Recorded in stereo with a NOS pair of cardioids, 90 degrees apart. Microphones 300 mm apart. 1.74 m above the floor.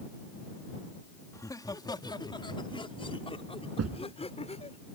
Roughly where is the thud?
Ahead right.